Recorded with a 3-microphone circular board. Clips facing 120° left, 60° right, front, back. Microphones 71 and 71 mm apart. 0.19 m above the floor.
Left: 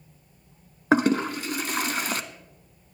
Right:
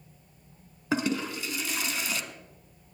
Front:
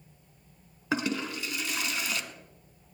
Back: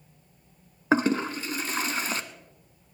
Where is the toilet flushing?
140° left, 0.9 m.